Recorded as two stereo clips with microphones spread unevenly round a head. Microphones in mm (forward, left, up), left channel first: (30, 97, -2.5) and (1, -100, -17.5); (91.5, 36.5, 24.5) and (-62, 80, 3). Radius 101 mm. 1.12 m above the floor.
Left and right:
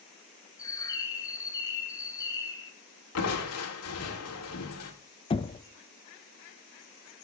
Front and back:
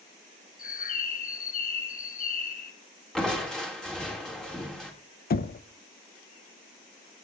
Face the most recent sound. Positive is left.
turn(degrees=15)